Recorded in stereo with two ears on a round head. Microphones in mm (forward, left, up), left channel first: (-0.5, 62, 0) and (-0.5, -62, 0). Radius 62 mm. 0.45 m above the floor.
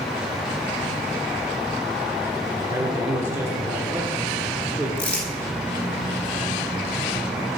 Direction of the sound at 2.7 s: 20° right (ahead or behind).